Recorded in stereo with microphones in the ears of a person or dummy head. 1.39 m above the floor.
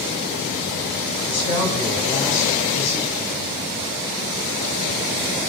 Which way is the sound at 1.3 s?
65° left (ahead or behind).